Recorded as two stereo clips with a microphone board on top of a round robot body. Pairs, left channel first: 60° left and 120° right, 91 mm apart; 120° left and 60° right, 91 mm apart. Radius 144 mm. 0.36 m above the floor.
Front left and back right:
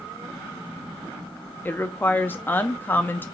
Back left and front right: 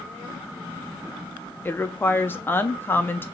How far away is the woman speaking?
About 0.8 m.